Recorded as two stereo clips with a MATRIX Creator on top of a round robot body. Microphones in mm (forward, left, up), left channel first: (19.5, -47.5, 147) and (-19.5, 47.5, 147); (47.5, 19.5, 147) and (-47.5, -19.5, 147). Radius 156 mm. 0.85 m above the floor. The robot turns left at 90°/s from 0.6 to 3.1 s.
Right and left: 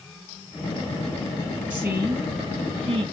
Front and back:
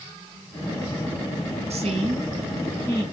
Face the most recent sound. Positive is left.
turn(degrees=70)